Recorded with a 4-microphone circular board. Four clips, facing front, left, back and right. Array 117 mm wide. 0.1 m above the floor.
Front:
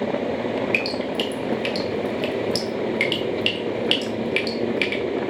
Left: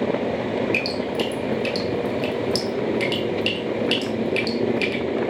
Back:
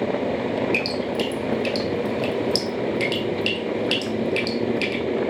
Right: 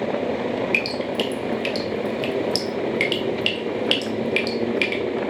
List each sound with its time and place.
0.7 s dripping: 50° right, 0.9 m